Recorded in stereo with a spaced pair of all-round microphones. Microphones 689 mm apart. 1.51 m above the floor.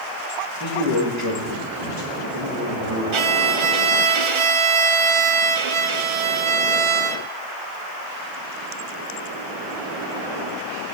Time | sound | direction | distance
0.6 | a man speaking | 25° right (ahead or behind) | 2.5 m
3.1 | a violin | 50° right (ahead or behind) | 0.6 m